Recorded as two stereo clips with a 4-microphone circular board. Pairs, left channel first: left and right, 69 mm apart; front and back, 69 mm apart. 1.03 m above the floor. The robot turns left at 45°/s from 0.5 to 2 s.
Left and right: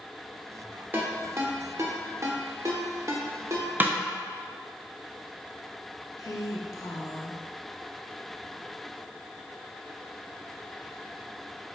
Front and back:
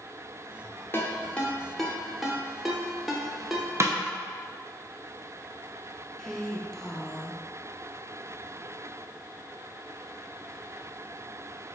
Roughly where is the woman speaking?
Left.